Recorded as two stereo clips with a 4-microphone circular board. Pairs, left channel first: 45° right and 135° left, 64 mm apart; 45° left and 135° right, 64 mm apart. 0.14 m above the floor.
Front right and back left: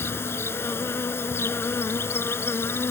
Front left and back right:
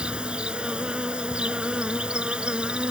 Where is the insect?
70° right.